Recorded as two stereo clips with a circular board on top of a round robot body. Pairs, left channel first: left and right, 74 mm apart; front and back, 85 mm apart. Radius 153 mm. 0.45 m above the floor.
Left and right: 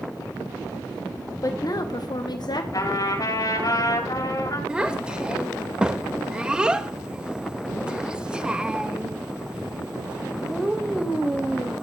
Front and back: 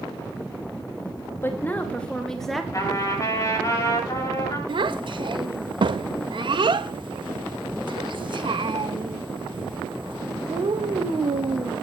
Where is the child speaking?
165° right, 2.0 m.